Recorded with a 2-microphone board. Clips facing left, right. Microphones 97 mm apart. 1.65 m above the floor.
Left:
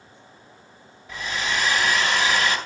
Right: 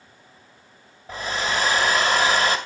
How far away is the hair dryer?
About 1.9 m.